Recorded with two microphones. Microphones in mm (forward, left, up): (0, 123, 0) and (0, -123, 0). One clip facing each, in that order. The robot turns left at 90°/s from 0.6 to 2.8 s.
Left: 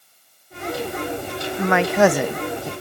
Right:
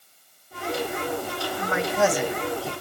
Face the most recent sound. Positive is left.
turn(degrees=5)